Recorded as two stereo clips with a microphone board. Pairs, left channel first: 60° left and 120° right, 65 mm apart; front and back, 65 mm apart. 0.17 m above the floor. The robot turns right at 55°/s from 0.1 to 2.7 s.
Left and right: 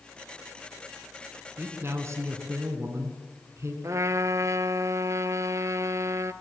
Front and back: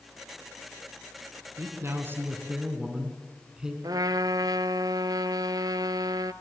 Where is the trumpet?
160° right, 0.7 m.